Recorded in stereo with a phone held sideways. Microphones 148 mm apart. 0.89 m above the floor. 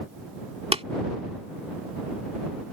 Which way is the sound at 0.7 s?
45° right (ahead or behind).